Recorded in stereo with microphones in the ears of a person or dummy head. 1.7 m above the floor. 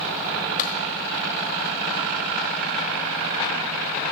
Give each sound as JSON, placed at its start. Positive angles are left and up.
{"t": 0.6, "sound": "a clap", "side_deg": 50, "distance_m": 4.0}